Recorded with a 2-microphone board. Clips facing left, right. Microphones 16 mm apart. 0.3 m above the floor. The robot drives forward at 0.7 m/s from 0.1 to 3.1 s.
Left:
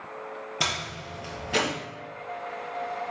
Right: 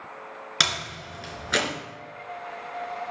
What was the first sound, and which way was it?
A door slam, 75° right (ahead or behind).